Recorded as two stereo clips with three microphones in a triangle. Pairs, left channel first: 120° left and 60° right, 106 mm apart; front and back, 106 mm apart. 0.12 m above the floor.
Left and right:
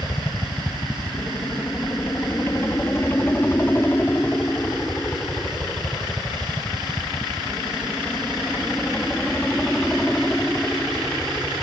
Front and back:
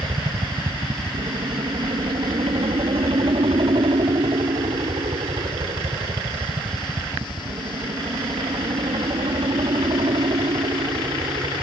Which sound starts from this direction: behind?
A helicopter, at 0.0 s.